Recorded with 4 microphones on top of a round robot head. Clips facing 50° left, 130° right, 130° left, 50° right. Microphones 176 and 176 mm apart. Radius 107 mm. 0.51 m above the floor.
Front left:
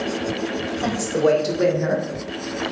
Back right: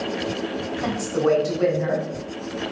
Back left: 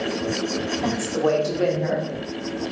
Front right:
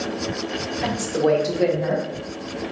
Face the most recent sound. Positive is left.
turn(degrees=50)